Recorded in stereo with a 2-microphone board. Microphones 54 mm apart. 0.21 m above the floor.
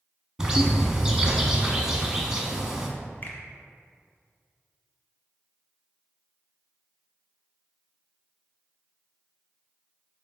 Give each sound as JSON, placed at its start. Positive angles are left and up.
{"t": 0.4, "sound": "a bird", "side_deg": -15, "distance_m": 0.9}
{"t": 3.2, "sound": "a finger snap", "side_deg": 40, "distance_m": 1.1}